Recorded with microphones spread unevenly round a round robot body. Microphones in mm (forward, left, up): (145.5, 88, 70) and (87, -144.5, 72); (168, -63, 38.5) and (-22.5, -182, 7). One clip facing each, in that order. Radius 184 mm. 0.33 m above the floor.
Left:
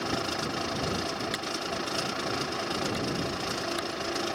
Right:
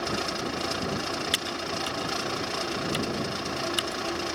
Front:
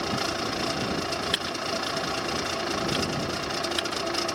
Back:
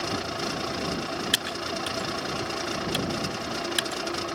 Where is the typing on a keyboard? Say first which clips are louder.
Right 1 dB, front 1 dB; 155° right.